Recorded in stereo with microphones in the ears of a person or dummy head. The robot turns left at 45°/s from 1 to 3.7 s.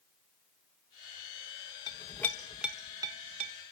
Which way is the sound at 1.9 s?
25° left (ahead or behind).